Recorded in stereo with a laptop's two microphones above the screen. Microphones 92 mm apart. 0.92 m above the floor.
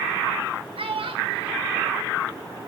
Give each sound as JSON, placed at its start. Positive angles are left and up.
{"t": 0.8, "sound": "a child speaking", "side_deg": -90, "distance_m": 2.0}